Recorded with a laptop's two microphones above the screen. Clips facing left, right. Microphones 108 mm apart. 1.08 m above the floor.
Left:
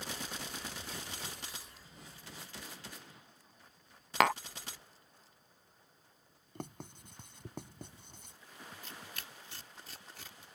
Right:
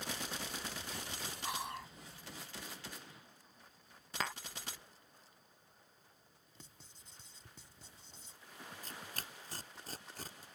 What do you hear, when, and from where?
1.4 s whispering: 70° right (ahead or behind)
4.2 s tapping: 75° left (ahead or behind)
6.5 s writing: 60° left (ahead or behind)
8.8 s tearing paper: 40° right (ahead or behind)